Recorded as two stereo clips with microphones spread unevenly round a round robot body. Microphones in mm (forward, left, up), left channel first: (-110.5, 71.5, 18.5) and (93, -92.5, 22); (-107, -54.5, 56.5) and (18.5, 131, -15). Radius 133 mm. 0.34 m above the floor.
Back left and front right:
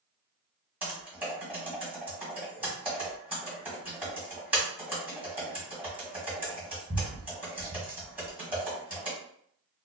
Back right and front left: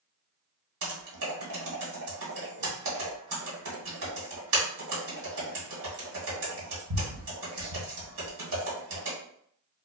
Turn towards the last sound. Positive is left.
turn(degrees=45)